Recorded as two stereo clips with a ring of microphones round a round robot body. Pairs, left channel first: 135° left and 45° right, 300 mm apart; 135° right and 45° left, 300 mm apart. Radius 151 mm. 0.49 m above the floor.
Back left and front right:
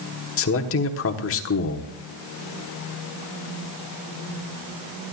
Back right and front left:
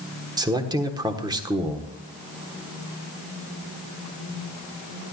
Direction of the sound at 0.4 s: 115° left.